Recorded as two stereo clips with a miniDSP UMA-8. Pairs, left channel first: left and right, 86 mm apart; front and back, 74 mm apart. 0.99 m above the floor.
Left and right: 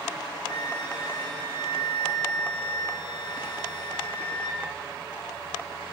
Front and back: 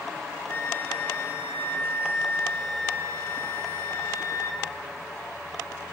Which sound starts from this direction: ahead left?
A flute, at 0.5 s.